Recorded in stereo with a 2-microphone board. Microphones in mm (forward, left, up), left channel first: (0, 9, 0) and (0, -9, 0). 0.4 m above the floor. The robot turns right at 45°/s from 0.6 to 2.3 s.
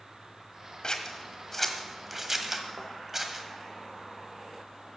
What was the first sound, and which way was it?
Scissors, 45° left (ahead or behind).